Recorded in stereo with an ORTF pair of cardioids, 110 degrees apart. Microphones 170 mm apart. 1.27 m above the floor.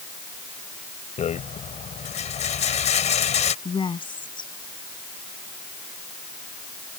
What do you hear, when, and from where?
1.2 s a rattle: 40° left
3.6 s a woman speaking: 30° left